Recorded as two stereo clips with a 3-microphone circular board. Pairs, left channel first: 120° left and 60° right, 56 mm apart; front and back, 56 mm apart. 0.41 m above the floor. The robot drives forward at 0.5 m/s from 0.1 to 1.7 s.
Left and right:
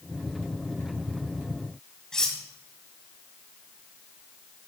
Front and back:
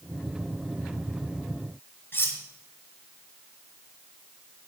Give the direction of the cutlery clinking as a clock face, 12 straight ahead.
11 o'clock.